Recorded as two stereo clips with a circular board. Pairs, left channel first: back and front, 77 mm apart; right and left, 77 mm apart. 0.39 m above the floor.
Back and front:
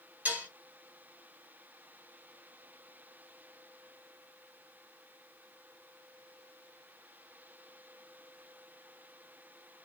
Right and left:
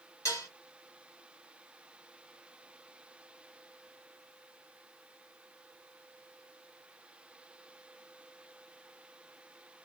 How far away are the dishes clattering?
About 0.9 m.